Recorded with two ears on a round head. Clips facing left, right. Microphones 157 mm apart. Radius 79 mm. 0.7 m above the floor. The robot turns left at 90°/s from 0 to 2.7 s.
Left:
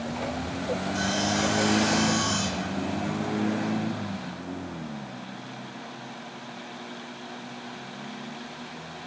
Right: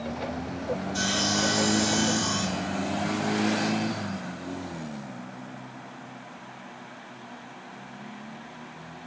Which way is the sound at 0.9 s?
40° right.